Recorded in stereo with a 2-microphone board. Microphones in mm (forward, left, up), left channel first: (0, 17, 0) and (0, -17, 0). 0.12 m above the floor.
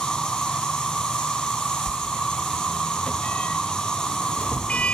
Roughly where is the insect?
Left.